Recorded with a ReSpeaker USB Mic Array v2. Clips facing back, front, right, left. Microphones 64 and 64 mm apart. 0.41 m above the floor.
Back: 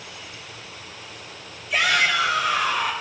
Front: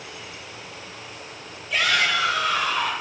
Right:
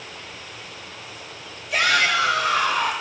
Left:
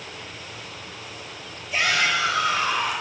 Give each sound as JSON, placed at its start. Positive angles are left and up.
{"t": 1.7, "sound": "a shout", "azimuth_deg": -95, "distance_m": 7.0}